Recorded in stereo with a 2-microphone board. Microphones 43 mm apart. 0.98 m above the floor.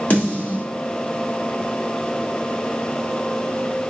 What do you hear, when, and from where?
0.1 s a snare drum: 35° left (ahead or behind), 1.4 m